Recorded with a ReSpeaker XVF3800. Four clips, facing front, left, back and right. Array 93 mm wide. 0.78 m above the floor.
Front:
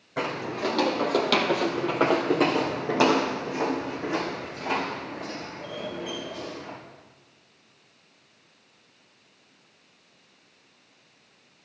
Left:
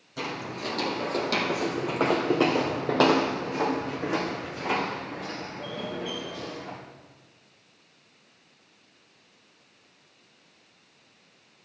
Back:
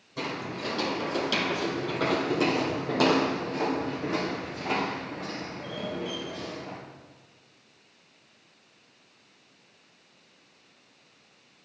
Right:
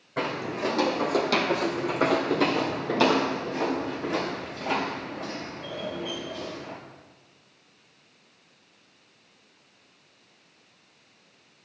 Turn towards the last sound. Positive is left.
turn(degrees=95)